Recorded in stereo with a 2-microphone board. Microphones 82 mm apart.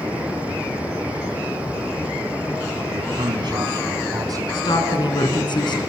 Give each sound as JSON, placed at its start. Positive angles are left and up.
{"t": 2.9, "sound": "a man speaking", "side_deg": -70, "distance_m": 4.0}
{"t": 4.5, "sound": "a woman speaking", "side_deg": 65, "distance_m": 3.5}